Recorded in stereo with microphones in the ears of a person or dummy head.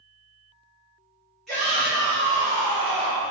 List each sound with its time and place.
1.5 s a shout: 5° left (ahead or behind), 0.9 m; by 3.3 s 60° right (ahead or behind), 1.1 m